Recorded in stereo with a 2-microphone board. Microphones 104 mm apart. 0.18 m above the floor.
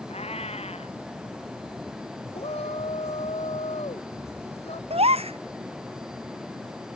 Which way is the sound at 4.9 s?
75° right (ahead or behind).